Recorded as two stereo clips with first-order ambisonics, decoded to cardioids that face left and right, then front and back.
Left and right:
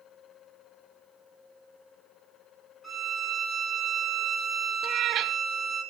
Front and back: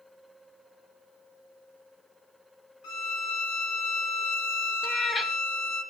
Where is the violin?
5° right, 3 m.